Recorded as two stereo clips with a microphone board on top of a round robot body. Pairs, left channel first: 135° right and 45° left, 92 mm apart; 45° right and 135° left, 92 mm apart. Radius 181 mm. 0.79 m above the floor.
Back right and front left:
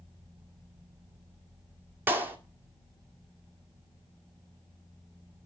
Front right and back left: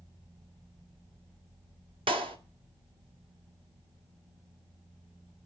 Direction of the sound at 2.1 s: 110° left.